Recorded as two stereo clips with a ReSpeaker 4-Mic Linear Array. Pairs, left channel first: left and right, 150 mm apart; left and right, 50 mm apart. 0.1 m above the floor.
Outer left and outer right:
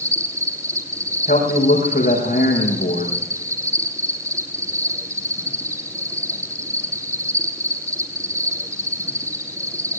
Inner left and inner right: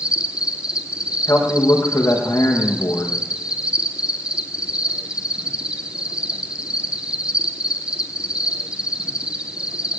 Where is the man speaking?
60° left (ahead or behind), 6.5 m.